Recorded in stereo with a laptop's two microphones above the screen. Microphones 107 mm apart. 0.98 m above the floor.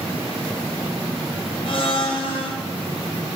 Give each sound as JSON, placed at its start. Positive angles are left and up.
{"t": 1.6, "sound": "a blender", "side_deg": 55, "distance_m": 0.7}